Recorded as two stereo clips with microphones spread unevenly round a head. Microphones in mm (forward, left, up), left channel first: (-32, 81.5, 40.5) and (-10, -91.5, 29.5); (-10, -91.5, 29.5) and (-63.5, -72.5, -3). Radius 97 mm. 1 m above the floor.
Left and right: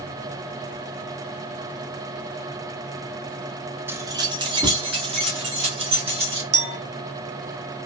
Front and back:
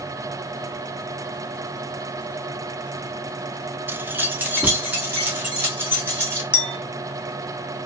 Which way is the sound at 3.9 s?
160° right.